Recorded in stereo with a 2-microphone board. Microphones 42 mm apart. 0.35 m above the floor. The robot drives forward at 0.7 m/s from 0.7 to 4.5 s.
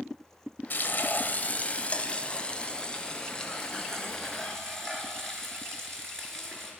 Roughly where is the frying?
Left.